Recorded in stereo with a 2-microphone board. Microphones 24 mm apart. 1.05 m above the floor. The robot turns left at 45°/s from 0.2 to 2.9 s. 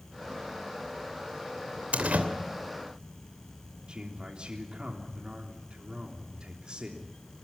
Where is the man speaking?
40° right (ahead or behind), 3 m.